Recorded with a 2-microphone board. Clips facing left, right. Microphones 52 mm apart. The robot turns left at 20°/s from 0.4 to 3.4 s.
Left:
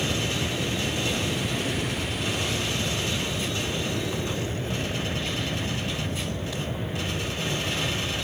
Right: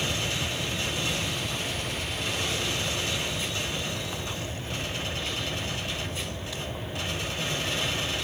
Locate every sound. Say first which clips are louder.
0.0 s an aircraft: left 2 dB; 135° left; by 8.2 s 75° left